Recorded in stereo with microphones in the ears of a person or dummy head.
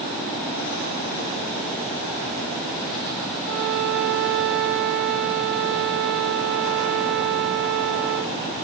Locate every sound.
3.4 s a violin: 50° right (ahead or behind), 3 m